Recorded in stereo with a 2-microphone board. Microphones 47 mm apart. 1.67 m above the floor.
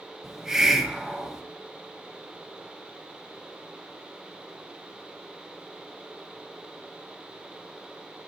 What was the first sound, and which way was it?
A hiss, 10° right (ahead or behind).